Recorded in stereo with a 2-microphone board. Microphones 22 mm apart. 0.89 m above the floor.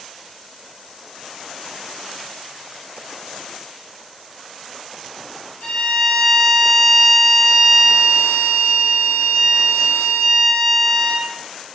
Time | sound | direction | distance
5.6 | a violin | 25° left (ahead or behind) | 1.4 m